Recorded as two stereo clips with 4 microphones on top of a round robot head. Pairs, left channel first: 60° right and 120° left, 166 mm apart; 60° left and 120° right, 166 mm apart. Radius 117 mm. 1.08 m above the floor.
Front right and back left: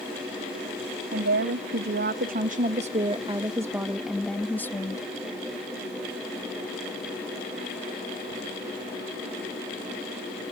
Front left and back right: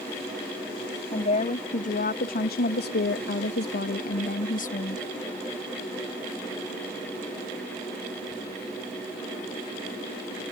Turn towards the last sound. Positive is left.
turn(degrees=10)